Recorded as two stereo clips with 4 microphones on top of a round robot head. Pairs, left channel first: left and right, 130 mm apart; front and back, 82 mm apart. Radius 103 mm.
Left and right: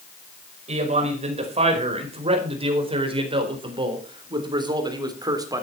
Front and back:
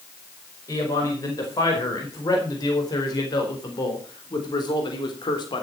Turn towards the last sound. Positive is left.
turn(degrees=-30)